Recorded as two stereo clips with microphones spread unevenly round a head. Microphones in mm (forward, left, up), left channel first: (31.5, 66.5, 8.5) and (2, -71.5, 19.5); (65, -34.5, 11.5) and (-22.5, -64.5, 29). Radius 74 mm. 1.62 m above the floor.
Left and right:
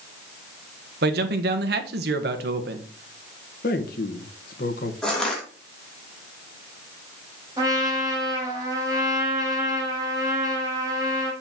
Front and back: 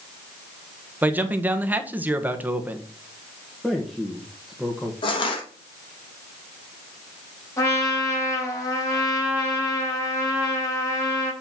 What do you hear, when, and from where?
1.0 s a man speaking: 90° right, 1.4 m
3.6 s a man speaking: 110° left, 1.5 m
5.0 s crushing: 10° right, 3 m
7.6 s a trumpet: 40° right, 3.5 m